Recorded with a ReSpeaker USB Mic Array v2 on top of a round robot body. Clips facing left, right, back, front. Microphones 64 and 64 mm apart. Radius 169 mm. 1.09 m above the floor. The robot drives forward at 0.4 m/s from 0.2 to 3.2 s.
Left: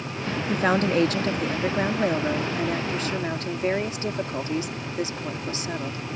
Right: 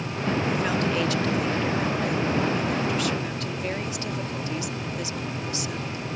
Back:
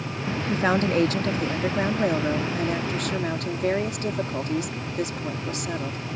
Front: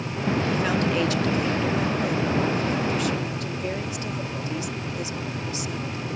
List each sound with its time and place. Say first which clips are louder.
0.5 s a woman speaking: left 3 dB, back 6 dB; 130° left; by 6.0 s 145° left